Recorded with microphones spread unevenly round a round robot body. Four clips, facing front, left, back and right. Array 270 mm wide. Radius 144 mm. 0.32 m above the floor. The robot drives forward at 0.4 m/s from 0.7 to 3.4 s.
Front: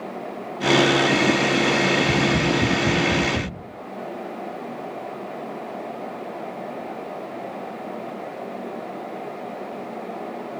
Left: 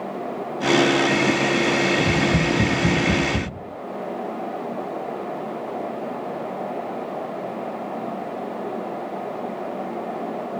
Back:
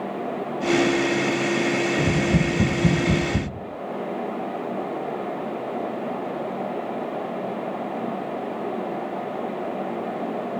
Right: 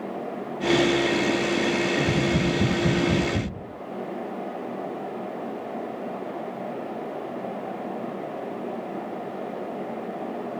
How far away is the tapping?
About 8.5 m.